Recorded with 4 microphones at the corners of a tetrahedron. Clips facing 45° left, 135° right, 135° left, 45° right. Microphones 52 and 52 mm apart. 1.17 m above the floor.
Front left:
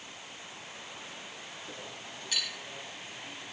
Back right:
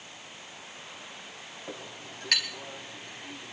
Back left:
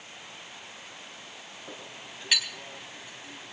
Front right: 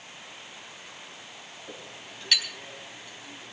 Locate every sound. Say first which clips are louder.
1.7 s a clink: back right 5 dB, even; 145° right, 4.5 m